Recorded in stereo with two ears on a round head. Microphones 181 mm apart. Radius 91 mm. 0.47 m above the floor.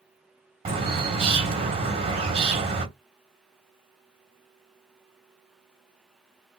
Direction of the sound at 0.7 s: 30° right (ahead or behind).